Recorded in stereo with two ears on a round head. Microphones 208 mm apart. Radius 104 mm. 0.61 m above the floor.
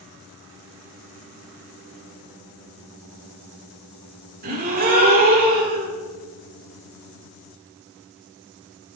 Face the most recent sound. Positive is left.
turn(degrees=-40)  # may be behind; listen again after turning